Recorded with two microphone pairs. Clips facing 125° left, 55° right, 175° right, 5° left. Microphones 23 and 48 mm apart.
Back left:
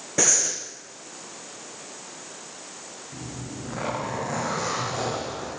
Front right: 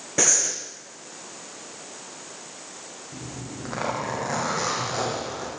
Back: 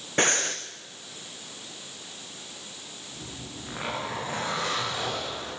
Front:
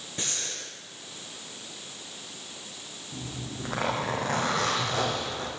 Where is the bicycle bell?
No bicycle bell in this recording.